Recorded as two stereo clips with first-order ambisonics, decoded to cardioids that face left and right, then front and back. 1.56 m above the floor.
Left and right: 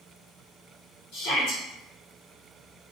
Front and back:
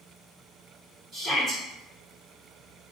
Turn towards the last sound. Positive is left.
turn(degrees=110)